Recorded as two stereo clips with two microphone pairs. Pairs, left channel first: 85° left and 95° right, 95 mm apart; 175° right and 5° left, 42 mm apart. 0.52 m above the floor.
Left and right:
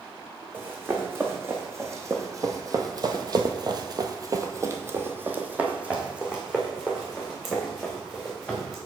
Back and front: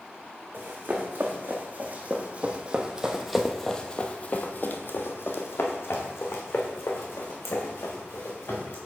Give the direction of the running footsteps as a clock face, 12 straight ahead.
1 o'clock.